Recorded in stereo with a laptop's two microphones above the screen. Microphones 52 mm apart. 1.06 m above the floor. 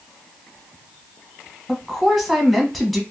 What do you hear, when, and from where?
1.7 s a woman speaking: centre (ahead or behind), 1.3 m